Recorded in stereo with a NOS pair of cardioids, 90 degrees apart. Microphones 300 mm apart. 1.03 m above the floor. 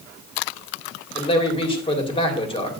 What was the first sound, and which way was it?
A man speaking, 15° left.